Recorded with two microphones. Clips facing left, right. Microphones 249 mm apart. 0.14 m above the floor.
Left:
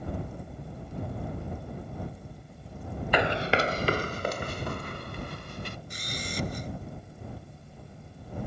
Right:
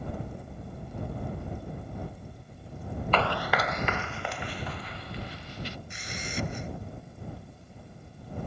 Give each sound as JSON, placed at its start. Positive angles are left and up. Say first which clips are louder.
{"t": 3.1, "sound": "running footsteps", "louder": "left 3 dB", "side_deg": 15}
{"t": 5.9, "sound": "a camera shutter", "louder": "even", "side_deg": 40}